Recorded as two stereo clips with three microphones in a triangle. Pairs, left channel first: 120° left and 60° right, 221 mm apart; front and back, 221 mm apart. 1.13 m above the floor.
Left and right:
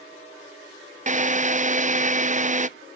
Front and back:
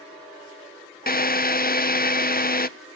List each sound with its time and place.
1.1 s a drill: 20° right, 0.6 m